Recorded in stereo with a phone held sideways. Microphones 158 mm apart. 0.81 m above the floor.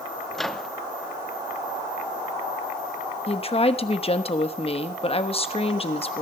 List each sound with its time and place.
0.3 s a microwave: centre (ahead or behind), 0.8 m
3.3 s a woman speaking: 40° left (ahead or behind), 1.0 m